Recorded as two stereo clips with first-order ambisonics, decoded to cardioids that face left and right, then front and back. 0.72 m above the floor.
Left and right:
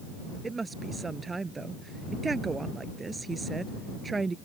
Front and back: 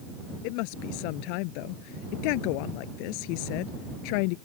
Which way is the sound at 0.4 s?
15° right.